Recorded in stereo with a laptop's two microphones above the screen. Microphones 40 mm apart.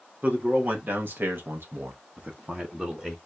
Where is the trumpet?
No trumpet in this recording.